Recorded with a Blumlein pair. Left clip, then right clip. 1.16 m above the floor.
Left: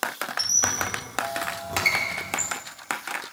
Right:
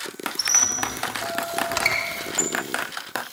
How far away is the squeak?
About 0.9 m.